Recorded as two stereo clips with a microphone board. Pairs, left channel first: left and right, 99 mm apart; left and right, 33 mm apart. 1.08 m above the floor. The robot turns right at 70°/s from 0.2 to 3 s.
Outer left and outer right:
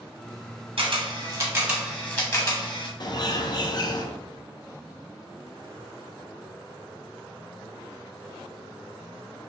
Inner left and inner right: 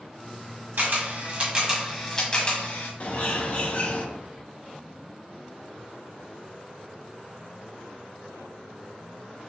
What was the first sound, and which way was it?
A camera shutter, 60° right (ahead or behind).